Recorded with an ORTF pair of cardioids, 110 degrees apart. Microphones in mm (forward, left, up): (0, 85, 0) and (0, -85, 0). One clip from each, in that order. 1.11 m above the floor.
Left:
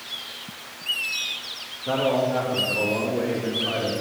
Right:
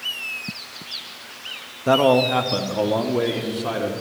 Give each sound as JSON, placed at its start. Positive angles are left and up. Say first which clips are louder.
{"t": 1.9, "sound": "a man speaking", "louder": "right 6 dB", "azimuth_deg": -55, "distance_m": 1.0}